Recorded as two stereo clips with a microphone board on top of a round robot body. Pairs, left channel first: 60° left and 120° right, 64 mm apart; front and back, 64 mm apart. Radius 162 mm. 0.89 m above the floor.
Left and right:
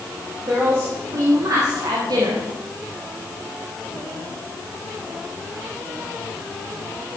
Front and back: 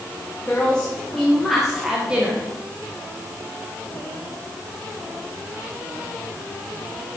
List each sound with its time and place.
0.4 s a woman speaking: 75° right, 3.5 m; by 2.5 s 115° right, 2 m